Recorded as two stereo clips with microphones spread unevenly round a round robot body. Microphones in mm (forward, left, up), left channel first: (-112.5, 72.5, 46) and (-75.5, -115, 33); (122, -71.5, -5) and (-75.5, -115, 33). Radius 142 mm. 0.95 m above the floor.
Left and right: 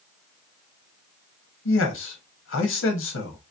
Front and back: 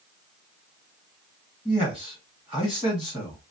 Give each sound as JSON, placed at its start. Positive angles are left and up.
{"t": 1.6, "sound": "a man speaking", "azimuth_deg": 100, "distance_m": 1.2}